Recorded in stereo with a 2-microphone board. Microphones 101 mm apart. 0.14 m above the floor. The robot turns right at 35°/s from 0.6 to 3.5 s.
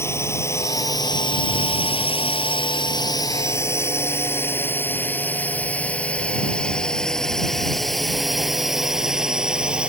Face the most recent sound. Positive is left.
turn(degrees=-10)  # may be behind; listen again after turning